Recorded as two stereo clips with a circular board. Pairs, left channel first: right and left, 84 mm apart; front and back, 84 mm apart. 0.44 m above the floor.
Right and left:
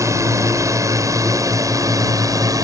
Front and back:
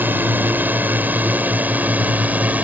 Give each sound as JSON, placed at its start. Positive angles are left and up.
{"t": 0.0, "sound": "a drone", "azimuth_deg": 120}